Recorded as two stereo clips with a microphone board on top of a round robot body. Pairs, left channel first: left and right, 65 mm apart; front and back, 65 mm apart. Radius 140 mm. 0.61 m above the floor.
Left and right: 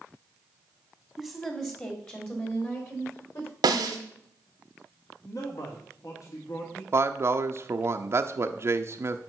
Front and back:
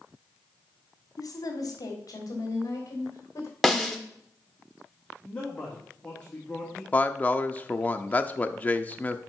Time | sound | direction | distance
1.2 | a woman speaking | 10° left | 1.5 m
3.6 | a snare drum | 90° right | 0.8 m
5.2 | a man speaking | 70° left | 1.9 m
6.9 | a man speaking | 60° right | 0.7 m